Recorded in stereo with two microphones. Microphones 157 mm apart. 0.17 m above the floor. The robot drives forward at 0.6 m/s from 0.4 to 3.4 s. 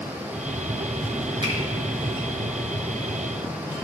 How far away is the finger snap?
About 1.7 m.